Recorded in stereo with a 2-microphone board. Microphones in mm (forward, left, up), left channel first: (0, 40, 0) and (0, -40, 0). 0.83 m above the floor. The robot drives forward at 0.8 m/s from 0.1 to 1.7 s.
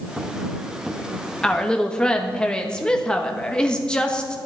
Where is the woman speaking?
10° left (ahead or behind), 1.2 m.